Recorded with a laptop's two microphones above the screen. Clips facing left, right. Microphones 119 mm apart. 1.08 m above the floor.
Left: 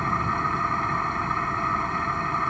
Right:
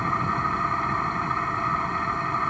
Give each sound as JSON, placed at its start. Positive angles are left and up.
{"t": 0.0, "sound": "an engine running", "side_deg": 0}